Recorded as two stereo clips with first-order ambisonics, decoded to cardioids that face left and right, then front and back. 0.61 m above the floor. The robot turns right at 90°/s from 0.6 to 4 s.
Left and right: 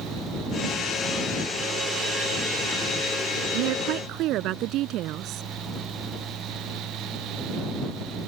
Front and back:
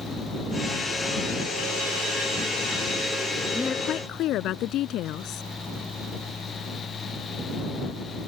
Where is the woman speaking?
90° right; by 5.4 s 45° right.